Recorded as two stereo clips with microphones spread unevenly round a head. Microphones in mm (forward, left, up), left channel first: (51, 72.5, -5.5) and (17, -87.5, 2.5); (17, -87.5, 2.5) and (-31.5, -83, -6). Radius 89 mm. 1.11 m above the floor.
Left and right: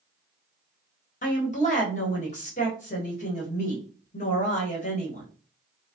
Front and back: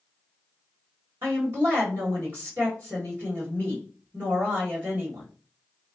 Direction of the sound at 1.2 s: 120° left.